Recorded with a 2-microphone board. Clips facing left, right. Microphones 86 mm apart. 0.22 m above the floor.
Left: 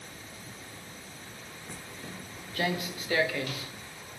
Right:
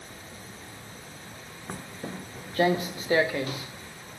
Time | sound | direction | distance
1.7 | footsteps | 55° right (ahead or behind) | 0.5 m